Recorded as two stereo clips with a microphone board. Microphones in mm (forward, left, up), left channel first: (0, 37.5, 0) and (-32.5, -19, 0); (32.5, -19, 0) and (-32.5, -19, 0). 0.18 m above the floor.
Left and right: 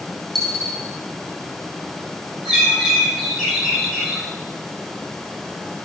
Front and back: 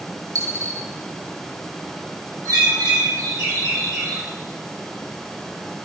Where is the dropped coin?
145° left, 2.5 m.